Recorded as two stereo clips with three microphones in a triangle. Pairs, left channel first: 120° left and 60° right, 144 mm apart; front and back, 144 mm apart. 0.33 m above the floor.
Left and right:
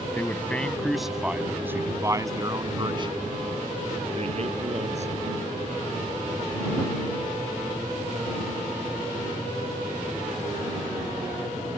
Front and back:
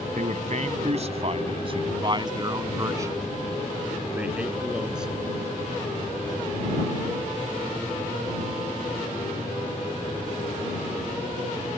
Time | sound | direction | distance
0.1 | a man speaking | 165° right | ?